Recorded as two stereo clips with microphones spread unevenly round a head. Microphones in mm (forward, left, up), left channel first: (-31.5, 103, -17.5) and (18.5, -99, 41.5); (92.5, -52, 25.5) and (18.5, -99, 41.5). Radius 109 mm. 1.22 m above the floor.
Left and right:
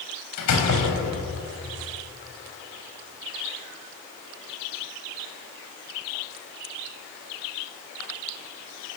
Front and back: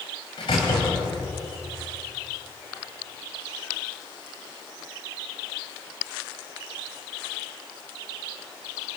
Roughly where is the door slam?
Left.